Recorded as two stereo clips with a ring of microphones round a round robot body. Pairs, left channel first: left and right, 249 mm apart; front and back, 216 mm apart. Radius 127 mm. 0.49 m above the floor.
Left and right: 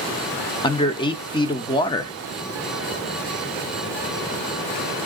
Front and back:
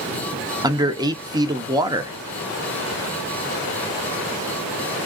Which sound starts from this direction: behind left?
A man speaking, at 0.6 s.